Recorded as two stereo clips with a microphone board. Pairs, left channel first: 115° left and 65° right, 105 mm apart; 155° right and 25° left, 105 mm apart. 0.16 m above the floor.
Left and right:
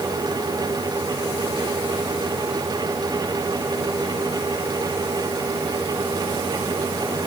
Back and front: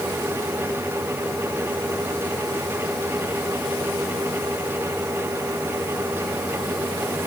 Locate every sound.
Only background noise.